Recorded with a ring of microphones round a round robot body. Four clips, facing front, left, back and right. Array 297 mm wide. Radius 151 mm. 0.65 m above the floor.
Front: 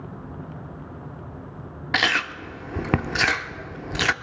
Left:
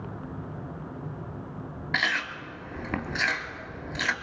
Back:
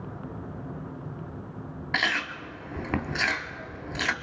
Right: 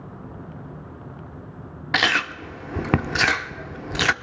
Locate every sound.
1.9 s chewing: 60° right, 0.6 m